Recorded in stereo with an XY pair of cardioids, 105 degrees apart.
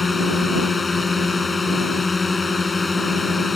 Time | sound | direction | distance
0.0 | a drone | 25° left | ?